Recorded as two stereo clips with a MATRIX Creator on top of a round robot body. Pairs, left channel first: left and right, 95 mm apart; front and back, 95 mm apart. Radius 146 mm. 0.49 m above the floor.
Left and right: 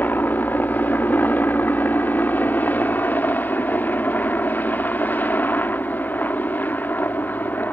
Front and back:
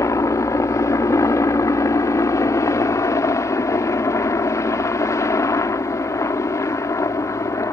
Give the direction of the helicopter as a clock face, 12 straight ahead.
11 o'clock.